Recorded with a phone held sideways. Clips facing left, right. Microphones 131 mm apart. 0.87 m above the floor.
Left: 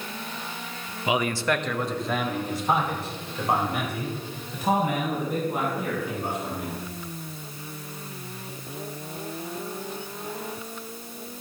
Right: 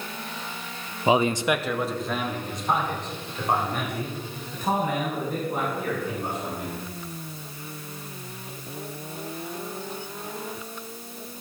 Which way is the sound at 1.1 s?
35° right (ahead or behind).